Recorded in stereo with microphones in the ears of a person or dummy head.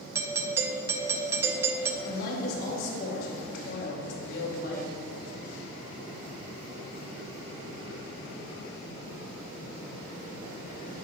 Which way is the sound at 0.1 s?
15° right (ahead or behind).